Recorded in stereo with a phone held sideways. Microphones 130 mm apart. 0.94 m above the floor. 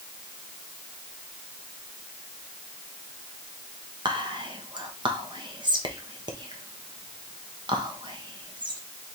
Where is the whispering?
35° right (ahead or behind), 0.9 m.